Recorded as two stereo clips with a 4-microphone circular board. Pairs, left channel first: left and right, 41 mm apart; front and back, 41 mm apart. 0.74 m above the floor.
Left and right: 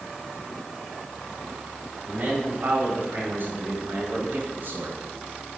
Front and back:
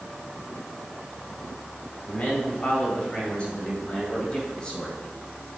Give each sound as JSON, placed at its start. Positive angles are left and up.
{"t": 2.0, "sound": "a man speaking", "azimuth_deg": -45, "distance_m": 5.0}